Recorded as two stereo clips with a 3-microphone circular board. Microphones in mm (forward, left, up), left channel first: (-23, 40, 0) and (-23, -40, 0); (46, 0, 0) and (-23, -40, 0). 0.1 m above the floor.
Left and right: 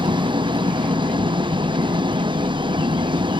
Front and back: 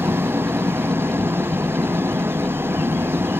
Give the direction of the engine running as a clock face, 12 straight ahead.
3 o'clock.